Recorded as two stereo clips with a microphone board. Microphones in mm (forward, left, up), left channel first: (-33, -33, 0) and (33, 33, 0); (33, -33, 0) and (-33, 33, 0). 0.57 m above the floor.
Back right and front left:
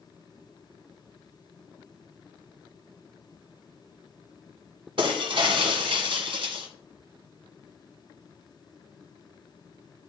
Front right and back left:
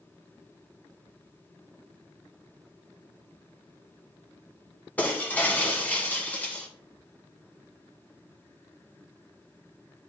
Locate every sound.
5.0 s breaking glass: 30° left, 1.2 m